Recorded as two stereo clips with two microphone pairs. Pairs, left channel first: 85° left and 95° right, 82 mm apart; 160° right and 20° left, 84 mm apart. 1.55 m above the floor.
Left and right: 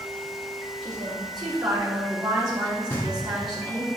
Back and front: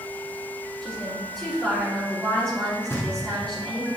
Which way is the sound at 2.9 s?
140° left.